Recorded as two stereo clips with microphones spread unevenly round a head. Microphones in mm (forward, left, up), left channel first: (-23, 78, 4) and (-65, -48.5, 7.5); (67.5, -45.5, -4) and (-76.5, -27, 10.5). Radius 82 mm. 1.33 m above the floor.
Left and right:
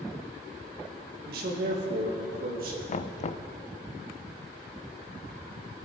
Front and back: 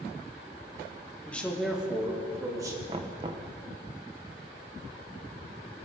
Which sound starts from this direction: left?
Knocking, at 2.9 s.